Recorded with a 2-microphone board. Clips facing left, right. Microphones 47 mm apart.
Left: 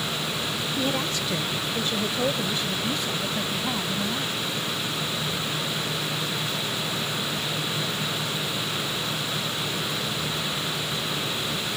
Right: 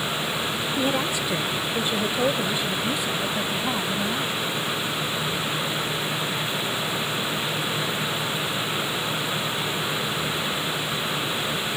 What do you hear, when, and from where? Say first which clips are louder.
0.8 s a woman speaking: right 3 dB; 15° right (ahead or behind)